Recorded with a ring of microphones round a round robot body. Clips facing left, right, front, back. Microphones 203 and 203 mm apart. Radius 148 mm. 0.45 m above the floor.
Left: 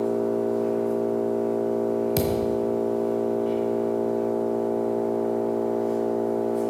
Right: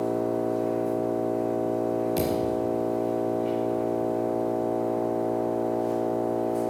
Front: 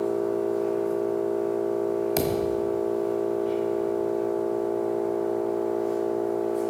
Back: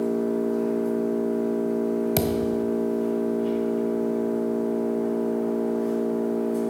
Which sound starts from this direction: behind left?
A thud, at 2.2 s.